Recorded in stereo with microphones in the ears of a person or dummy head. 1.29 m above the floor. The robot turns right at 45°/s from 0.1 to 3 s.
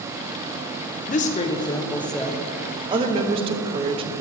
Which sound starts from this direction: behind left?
A woman speaking, at 1.1 s.